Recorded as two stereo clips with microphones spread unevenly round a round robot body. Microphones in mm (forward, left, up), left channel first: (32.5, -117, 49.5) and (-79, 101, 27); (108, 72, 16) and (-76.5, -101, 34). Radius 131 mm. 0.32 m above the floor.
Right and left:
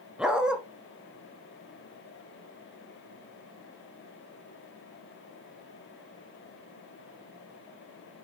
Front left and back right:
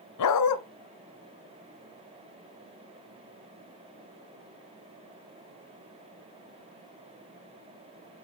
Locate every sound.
0.2 s a dog barking: 30° left, 1.2 m